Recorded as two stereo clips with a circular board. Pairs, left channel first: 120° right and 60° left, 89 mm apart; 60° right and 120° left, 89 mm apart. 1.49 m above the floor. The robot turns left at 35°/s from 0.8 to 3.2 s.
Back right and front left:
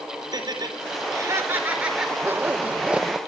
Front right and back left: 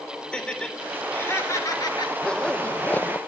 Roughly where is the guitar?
I don't hear a guitar.